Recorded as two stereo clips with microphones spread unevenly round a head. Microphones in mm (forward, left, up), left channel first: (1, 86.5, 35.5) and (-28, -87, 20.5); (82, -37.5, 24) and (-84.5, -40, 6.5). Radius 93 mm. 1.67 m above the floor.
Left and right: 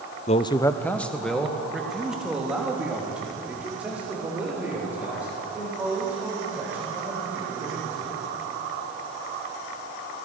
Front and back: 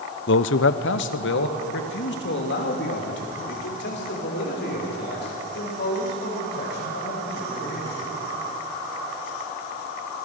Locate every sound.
0.3 s a man speaking: 25° left, 0.6 m; by 8.2 s 20° right, 10 m